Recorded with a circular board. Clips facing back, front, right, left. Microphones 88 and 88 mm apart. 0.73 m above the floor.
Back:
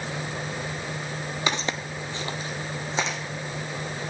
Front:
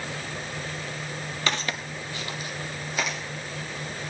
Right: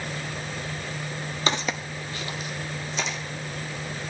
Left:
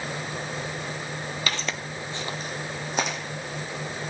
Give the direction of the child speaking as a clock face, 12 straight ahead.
No child speaking in this recording.